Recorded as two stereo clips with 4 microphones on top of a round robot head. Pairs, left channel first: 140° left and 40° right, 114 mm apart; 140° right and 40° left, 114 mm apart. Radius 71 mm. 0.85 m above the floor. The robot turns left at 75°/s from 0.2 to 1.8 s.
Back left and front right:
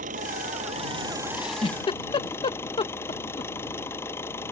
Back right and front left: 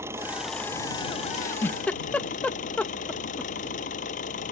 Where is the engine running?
30° right; by 4.5 s 150° right.